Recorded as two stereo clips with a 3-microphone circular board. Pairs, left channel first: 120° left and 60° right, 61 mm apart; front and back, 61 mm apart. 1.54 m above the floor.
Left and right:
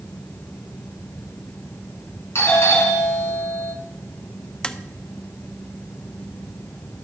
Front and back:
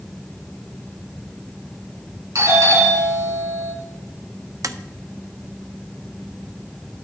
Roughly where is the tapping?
Behind.